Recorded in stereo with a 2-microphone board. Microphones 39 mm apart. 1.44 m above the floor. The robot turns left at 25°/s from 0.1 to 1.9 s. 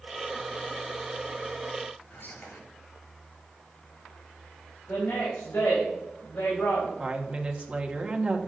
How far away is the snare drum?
I don't hear a snare drum.